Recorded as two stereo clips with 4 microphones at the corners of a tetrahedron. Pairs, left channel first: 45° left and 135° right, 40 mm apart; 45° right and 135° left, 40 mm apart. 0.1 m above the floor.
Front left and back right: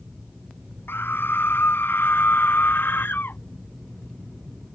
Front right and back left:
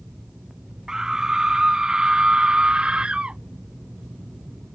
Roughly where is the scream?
Ahead left.